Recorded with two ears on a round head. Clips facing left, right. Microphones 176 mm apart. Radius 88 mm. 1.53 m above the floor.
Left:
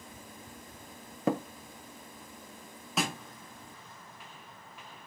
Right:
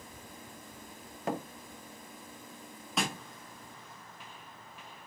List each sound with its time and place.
1.3 s tapping: 75° left (ahead or behind), 0.8 m
3.0 s a snare drum: centre (ahead or behind), 0.9 m